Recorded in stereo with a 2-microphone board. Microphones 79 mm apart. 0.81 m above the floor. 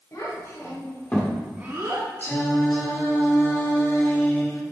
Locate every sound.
0.1 s a child speaking: 45° left (ahead or behind), 2.5 m; by 2.1 s 55° right (ahead or behind), 1.1 m
2.2 s singing: 30° left (ahead or behind), 1.7 m